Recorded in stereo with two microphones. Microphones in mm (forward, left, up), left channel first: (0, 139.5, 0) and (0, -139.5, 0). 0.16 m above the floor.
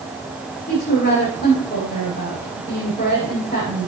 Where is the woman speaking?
30° left (ahead or behind), 6.5 m.